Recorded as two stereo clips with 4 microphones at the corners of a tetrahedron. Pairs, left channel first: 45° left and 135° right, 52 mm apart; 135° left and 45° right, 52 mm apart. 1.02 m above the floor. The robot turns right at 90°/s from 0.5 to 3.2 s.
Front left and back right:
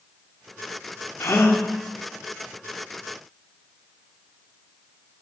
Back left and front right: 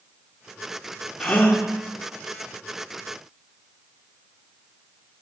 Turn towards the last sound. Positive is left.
turn(degrees=-115)